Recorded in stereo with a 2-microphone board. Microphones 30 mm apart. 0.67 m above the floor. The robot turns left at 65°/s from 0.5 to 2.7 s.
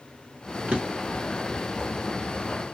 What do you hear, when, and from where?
0.7 s a drawer: 40° right (ahead or behind), 1.1 m; by 1.2 s 75° right (ahead or behind), 1.1 m